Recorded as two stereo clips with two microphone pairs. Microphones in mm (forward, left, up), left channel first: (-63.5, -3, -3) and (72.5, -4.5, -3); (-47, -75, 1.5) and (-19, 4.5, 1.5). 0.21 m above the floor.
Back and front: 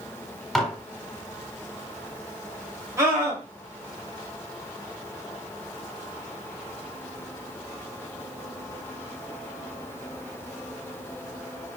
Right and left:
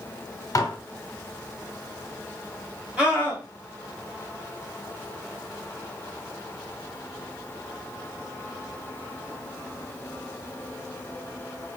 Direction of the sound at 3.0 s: 15° left.